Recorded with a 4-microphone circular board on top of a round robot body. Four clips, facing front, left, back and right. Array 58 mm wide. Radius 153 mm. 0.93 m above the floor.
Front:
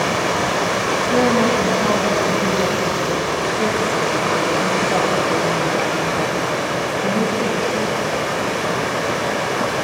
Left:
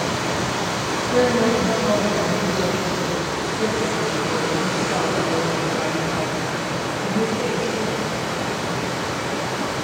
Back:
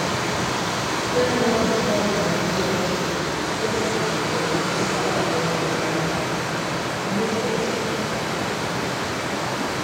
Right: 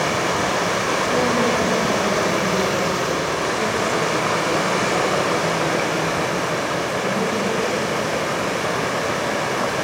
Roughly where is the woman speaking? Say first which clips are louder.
Left 4 dB, front 3 dB; ahead.